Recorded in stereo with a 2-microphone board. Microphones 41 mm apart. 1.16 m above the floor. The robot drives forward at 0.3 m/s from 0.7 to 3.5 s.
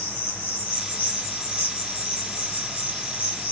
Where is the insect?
70° left (ahead or behind), 2 m; by 3.5 s 55° left (ahead or behind), 2.5 m.